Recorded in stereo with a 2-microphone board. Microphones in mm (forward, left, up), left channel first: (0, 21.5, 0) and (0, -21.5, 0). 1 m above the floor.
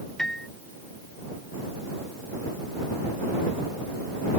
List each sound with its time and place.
0.2 s a piano: 10° left (ahead or behind)